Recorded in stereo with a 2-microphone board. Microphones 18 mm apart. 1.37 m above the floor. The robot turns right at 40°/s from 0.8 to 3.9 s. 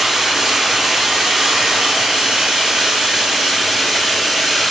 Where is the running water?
145° right, 4.5 m; by 4.7 s 20° right, 4.5 m.